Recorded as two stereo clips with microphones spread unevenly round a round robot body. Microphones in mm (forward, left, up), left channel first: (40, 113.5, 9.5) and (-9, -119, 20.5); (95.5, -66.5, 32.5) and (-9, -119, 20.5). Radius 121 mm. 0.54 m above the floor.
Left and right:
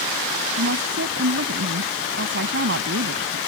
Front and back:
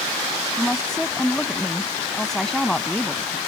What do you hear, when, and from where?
0.6 s a woman speaking: 60° right